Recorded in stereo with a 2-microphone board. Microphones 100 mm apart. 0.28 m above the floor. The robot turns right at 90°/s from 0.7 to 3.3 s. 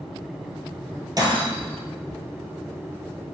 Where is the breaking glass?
40° right (ahead or behind), 1.5 m; by 1.8 s 85° right, 1.5 m.